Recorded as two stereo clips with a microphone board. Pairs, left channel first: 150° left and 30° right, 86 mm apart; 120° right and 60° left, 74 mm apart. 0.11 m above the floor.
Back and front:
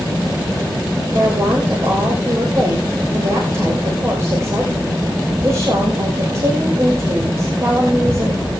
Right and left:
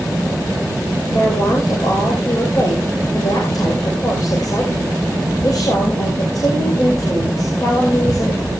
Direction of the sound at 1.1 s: 85° right.